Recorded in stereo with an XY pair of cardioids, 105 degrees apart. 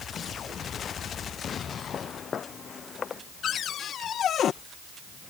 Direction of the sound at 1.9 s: 50° left.